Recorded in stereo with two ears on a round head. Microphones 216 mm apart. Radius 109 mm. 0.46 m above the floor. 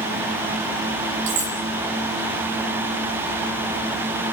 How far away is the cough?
I don't hear a cough.